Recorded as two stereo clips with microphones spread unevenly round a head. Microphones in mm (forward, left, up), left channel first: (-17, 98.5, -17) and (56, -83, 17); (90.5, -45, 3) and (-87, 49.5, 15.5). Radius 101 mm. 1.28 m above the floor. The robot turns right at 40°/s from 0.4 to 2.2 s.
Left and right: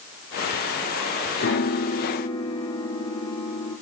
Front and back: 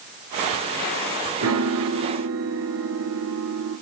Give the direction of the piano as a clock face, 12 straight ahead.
7 o'clock.